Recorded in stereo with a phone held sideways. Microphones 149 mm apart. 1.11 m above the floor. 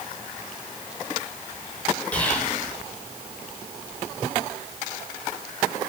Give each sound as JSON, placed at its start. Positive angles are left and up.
{"t": 2.1, "sound": "whispering", "side_deg": 10, "distance_m": 1.1}